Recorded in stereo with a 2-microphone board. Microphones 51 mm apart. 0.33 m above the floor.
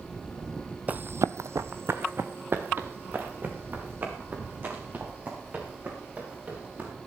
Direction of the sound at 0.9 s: 30° right (ahead or behind).